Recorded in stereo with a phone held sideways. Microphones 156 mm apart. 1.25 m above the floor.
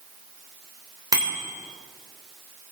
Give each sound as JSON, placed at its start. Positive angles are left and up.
{"t": 1.1, "sound": "a bicycle bell", "side_deg": -25, "distance_m": 3.0}